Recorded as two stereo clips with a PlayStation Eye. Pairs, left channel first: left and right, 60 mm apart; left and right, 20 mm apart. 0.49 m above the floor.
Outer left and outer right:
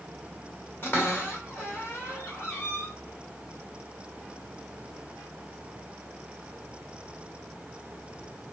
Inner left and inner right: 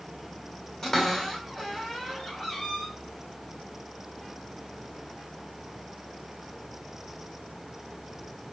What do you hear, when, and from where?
0.8 s a cupboard door: 35° left (ahead or behind), 1.4 m